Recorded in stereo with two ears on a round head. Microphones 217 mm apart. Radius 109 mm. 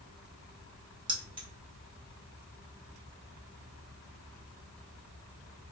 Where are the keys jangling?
20° right (ahead or behind), 0.8 m.